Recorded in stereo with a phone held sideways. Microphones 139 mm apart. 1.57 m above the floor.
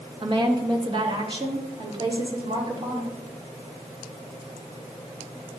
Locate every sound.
0.2 s a woman speaking: 35° right (ahead or behind), 2.0 m; by 3.1 s 40° right (ahead or behind), 4.5 m